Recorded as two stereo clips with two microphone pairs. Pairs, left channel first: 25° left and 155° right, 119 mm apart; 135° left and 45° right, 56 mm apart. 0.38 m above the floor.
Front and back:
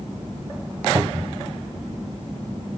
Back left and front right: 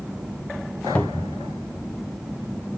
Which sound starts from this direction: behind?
A cupboard door, at 0.9 s.